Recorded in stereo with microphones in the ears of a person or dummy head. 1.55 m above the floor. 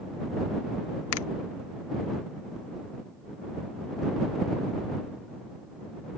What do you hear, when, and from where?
1.1 s a finger snap: 80° left